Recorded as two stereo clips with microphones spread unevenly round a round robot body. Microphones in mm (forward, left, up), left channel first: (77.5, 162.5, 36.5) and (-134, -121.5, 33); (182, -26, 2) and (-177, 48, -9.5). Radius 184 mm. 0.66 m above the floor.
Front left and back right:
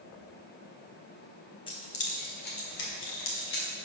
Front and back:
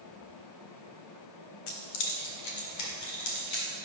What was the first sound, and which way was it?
Keys jangling, 20° right.